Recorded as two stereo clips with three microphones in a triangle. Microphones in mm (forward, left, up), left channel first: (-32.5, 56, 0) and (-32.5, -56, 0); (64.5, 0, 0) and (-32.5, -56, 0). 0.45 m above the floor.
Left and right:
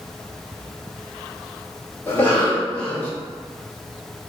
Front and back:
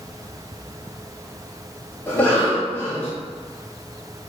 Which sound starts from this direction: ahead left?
A cough, at 2.1 s.